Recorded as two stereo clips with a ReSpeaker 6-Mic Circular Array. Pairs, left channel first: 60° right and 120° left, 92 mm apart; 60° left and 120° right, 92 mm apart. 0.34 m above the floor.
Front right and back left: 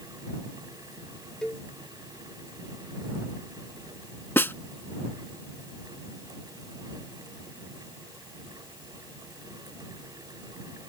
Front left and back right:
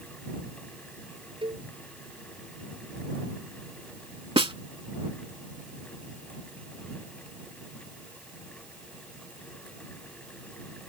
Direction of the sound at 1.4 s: 140° right.